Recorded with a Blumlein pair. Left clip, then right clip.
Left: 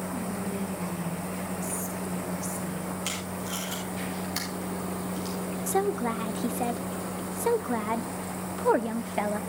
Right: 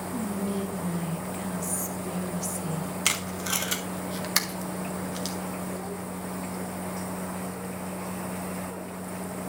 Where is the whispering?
15° right, 1.5 m.